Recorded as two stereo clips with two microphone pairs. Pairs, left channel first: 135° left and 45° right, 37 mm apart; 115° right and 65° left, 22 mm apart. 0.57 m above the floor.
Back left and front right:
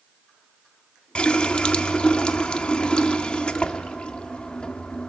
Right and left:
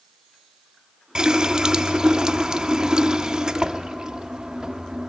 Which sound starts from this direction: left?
A running tap, at 1.1 s.